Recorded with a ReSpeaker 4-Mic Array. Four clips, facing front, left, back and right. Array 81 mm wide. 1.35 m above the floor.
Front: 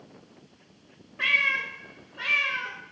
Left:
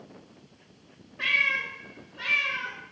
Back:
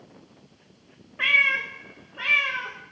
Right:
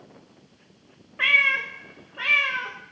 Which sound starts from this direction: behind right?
A cat meowing, at 1.2 s.